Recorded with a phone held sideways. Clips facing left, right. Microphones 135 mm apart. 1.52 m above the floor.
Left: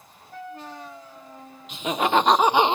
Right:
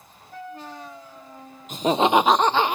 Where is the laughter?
45° right (ahead or behind), 0.6 m; by 2.8 s 25° left (ahead or behind), 0.6 m.